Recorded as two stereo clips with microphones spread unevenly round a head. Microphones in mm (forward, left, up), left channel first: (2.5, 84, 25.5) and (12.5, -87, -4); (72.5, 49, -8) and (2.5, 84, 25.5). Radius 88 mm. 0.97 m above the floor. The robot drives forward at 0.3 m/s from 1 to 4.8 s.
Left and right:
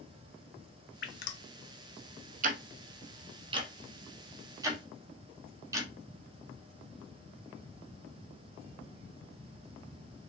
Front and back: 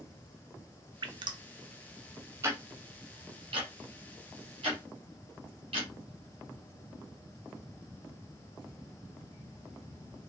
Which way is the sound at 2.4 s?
130° right.